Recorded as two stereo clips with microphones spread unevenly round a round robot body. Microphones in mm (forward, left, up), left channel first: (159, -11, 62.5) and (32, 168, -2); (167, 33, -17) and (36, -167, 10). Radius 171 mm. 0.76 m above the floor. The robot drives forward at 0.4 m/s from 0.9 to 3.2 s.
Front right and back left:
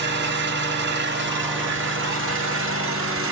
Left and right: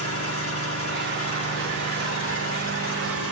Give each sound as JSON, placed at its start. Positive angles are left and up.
{"t": 0.0, "sound": "an engine running", "azimuth_deg": 90, "distance_m": 2.5}